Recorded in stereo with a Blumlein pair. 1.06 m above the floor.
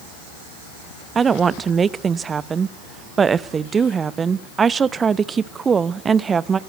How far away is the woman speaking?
About 0.8 m.